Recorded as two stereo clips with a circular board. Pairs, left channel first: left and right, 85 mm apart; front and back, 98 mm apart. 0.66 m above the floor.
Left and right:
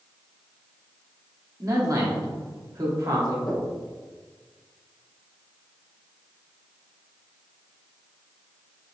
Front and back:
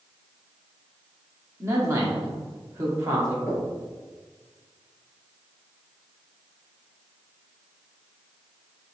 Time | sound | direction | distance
1.6 | a man speaking | 130° right | 0.9 m
3.5 | knocking | 70° left | 1.9 m